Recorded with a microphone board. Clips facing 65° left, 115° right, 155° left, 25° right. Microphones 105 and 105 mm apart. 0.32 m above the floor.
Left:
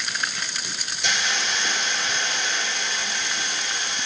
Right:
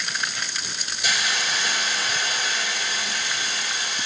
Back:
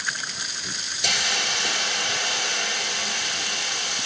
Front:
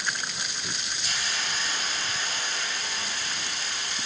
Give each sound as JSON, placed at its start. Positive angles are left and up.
{"t": 1.0, "sound": "a hiss", "azimuth_deg": 165, "distance_m": 3.5}